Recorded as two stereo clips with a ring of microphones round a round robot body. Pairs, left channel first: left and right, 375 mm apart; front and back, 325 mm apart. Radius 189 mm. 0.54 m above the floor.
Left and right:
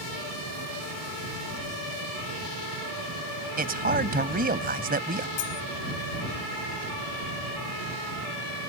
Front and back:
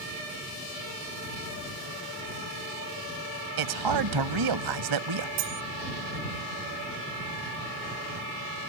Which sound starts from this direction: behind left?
Cutlery clinking, at 5.4 s.